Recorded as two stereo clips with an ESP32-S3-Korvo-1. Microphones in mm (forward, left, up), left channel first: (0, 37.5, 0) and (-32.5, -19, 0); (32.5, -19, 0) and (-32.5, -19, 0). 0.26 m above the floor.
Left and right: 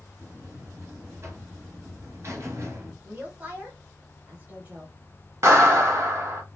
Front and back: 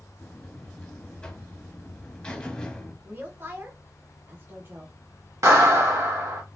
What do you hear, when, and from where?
0.2 s a buzzer: 75° right, 1.3 m
3.0 s a woman speaking: 160° right, 1.4 m
5.4 s a clap: 155° right, 2.0 m